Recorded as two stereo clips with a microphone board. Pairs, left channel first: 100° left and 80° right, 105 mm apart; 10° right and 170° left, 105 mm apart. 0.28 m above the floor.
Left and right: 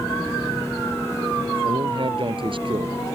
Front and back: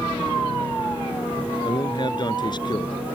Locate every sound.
1.6 s a man speaking: 50° right